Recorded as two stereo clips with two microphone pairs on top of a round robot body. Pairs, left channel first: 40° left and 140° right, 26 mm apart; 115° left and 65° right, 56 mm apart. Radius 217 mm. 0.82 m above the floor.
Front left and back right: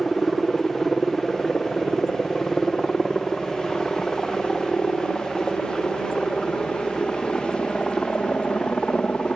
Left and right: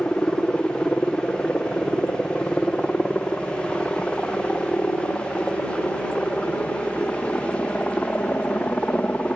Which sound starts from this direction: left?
A helicopter, at 0.0 s.